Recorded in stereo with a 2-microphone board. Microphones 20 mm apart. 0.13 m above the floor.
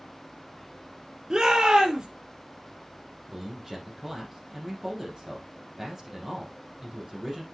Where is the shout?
40° right (ahead or behind), 3 m.